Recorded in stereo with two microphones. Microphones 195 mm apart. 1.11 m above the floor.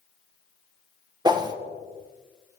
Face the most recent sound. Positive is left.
turn(degrees=-20)  # may be behind; listen again after turning